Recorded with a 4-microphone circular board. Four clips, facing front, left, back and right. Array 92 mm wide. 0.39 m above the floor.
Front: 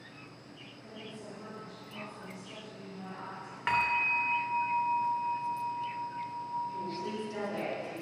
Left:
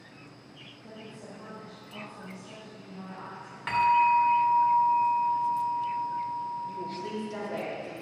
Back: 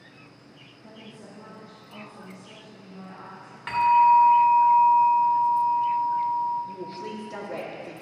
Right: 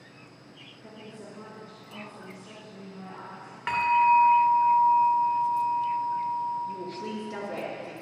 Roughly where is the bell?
Ahead right.